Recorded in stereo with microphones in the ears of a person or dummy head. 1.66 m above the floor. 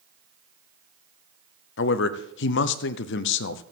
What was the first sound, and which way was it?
A man speaking, 75° left (ahead or behind).